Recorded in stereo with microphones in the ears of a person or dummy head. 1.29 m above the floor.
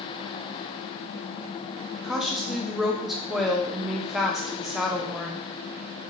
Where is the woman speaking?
Centre (ahead or behind), 0.6 m.